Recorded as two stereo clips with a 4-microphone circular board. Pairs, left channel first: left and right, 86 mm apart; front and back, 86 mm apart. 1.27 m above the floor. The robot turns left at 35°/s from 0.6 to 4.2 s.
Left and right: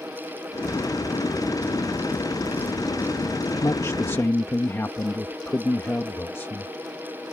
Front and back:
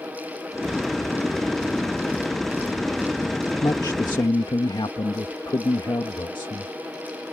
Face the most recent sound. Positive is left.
turn(degrees=25)